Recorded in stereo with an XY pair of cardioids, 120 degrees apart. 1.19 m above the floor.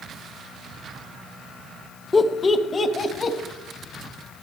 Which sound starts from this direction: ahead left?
Laughter, at 2.1 s.